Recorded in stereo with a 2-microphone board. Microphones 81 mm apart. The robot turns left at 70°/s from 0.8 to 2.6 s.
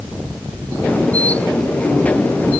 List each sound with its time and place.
Only background noise.